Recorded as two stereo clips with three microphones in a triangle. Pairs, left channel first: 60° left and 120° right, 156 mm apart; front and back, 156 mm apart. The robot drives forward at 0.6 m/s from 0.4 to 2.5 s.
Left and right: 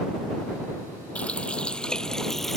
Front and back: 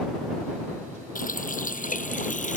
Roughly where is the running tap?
Ahead.